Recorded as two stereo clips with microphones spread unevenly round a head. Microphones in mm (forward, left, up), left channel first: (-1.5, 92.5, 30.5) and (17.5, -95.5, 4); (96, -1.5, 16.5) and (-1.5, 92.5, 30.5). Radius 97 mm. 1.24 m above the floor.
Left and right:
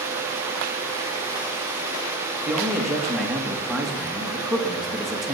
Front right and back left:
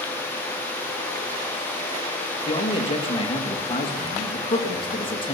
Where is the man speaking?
5° left, 2 m.